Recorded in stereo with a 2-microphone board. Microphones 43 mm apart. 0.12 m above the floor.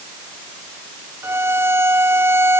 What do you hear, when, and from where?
1.2 s a violin: 75° right (ahead or behind)